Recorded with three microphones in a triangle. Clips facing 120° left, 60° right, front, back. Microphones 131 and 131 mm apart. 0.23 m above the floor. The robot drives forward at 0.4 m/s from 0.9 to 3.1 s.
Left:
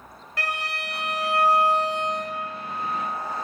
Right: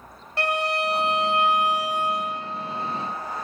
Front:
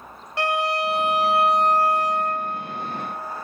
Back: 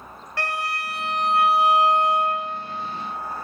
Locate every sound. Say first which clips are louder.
0.4 s a violin: right 7 dB, front 6 dB; 50° right, 0.6 m; by 2.5 s 150° right, 0.7 m